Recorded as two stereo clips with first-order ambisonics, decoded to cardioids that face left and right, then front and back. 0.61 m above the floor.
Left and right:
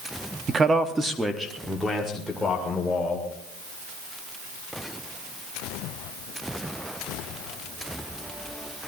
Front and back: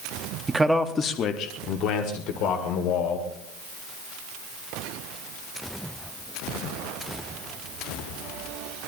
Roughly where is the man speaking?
Behind right.